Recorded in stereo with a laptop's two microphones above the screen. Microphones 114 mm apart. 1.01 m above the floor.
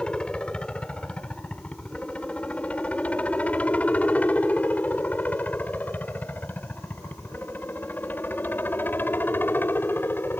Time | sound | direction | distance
0.0 | a helicopter | 10° left (ahead or behind) | ?